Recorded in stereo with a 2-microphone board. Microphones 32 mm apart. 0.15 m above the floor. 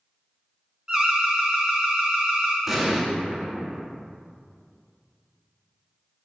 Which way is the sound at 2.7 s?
5° right (ahead or behind).